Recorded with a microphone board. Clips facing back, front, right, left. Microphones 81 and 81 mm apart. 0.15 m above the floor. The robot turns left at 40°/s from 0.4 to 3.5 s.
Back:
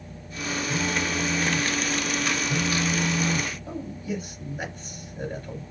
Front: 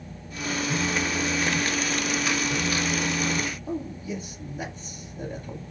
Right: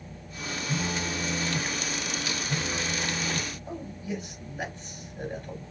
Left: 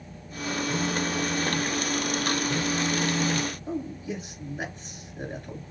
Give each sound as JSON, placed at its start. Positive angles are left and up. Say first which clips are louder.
{"t": 0.7, "sound": "a phone buzzing", "louder": "even, left 2 dB", "azimuth_deg": -85, "distance_m": 2.5}
{"t": 3.7, "sound": "a man speaking", "louder": "front 1 dB, left 3 dB", "azimuth_deg": 160, "distance_m": 2.5}